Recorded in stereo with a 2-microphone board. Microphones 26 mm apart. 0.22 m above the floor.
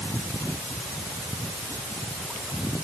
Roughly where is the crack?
I don't hear a crack.